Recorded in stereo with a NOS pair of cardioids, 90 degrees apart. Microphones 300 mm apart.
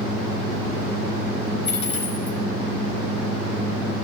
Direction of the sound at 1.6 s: 40° left.